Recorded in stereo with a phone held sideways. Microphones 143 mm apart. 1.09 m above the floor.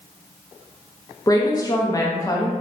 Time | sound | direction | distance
1.3 | a woman speaking | 25° left (ahead or behind) | 0.6 m